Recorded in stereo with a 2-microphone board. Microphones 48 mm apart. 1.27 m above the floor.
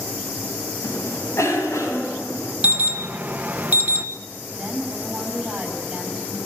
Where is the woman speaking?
20° right (ahead or behind), 10 m.